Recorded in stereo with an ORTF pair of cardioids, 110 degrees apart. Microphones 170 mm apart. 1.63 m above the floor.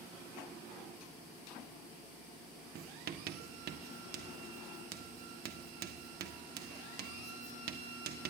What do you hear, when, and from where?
2.8 s writing: 60° right, 1.3 m